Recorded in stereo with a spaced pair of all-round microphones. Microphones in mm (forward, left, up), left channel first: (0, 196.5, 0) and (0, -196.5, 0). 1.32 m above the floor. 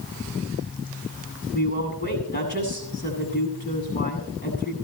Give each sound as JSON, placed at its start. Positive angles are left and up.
{"t": 1.5, "sound": "a woman speaking", "side_deg": 25, "distance_m": 8.5}